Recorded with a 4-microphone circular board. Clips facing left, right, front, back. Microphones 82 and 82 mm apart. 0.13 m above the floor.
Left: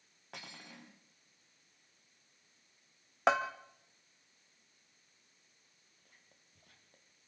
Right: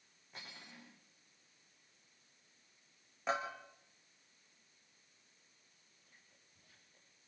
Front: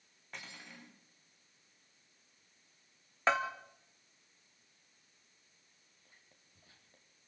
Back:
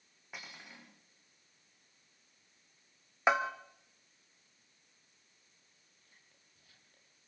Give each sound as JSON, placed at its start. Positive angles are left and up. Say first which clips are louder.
{"t": 0.3, "sound": "cutlery clinking", "louder": "left 3 dB, even", "azimuth_deg": 100, "distance_m": 5.5}
{"t": 3.3, "sound": "a bell", "louder": "left 8 dB, back 2 dB", "azimuth_deg": 105, "distance_m": 2.0}
{"t": 6.0, "sound": "whispering", "louder": "left 1 dB, front 2 dB", "azimuth_deg": 60, "distance_m": 5.5}